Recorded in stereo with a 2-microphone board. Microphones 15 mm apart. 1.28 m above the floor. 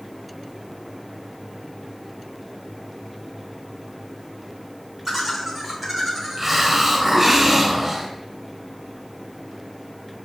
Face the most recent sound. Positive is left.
turn(degrees=-20)  # may be behind; listen again after turning